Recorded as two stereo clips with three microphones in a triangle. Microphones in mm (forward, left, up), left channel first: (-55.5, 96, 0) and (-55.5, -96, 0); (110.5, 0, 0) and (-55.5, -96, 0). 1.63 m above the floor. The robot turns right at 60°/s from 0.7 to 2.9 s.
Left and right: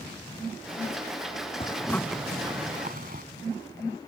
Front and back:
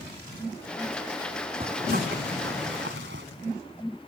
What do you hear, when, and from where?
1.6 s a zipper: 150° left; by 3.2 s 130° right